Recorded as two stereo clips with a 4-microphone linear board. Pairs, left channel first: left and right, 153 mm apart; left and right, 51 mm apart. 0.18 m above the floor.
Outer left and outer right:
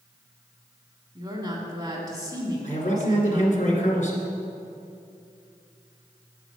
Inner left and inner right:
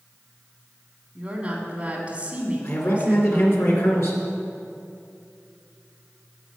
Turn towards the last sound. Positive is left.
turn(degrees=55)  # may be behind; listen again after turning